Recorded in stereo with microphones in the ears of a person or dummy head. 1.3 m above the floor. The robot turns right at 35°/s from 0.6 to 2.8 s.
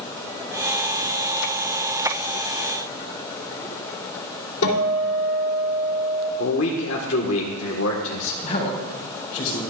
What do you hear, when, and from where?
4.6 s a guitar: 75° left (ahead or behind), 2.5 m
6.4 s a man speaking: 65° left (ahead or behind), 1.3 m
8.4 s a man speaking: 45° left (ahead or behind), 4 m